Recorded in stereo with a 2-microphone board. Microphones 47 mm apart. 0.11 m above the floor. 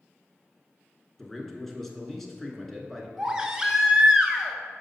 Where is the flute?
No flute in this recording.